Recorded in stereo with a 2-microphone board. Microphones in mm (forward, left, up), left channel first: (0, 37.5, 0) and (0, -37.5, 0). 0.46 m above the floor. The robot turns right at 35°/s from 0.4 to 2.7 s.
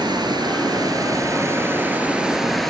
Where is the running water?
75° right, 5 m; by 2.7 s 5° left, 5 m.